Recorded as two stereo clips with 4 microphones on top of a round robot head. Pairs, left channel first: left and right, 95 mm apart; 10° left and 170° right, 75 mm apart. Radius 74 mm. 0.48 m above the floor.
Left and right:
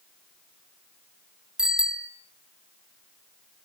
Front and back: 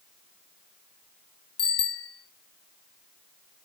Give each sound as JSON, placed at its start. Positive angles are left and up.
{"t": 1.6, "sound": "a bicycle bell", "azimuth_deg": -5, "distance_m": 3.5}